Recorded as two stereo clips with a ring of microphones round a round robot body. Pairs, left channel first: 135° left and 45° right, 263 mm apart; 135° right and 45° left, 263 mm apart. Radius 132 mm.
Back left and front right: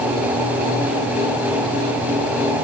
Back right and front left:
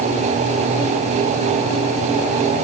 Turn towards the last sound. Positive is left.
No sound to turn to.